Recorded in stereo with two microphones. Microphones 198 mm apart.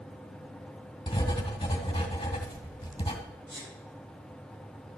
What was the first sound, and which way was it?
Writing, 25° left (ahead or behind).